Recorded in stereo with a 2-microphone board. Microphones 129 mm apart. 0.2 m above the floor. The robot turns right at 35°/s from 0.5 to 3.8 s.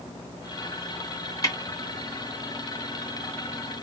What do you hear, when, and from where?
1.4 s a snare drum: 30° left (ahead or behind), 2 m; by 1.6 s 25° left (ahead or behind), 2 m